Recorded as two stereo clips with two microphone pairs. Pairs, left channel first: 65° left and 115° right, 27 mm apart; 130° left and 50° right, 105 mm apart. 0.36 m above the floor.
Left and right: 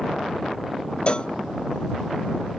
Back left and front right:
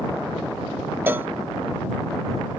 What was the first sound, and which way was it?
A cowbell, 20° left.